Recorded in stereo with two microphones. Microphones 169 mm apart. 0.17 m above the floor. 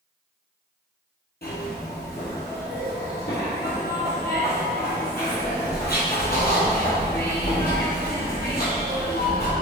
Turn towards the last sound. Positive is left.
turn(degrees=70)  # may be behind; listen again after turning